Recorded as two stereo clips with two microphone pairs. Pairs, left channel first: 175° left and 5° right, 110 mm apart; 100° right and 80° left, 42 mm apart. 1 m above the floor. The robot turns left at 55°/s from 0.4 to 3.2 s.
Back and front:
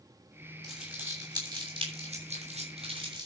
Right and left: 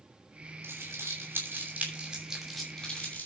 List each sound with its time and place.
0.6 s crumpling: 90° left, 7 m; by 3.3 s 50° right, 7 m